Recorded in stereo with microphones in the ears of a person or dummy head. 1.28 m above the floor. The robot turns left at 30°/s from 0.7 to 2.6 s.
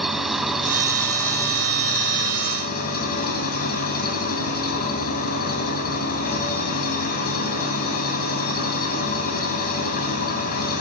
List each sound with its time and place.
0.0 s an engine running: straight behind, 3.5 m; by 10.8 s 125° left, 3.5 m